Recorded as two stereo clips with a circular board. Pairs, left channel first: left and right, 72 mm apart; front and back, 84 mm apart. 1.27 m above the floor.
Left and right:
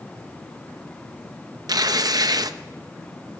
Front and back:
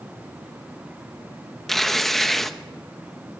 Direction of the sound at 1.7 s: 85° right.